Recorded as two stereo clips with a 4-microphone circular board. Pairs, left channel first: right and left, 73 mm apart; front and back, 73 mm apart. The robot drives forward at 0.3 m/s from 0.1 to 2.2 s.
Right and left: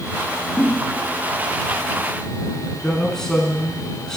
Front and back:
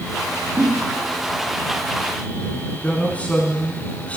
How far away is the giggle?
About 1.8 m.